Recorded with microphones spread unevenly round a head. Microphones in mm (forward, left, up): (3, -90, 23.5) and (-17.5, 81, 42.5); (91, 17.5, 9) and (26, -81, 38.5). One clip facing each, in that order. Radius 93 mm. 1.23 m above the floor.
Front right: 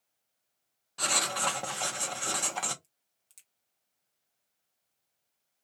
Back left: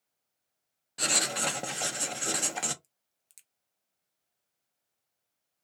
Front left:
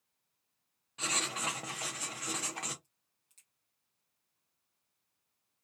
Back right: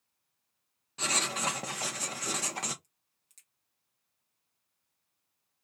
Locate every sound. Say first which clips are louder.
1.0 s writing: even, back right 4 dB; 165° left, 0.6 m
2.8 s a crack: front right 1 dB, even; 170° left, 0.7 m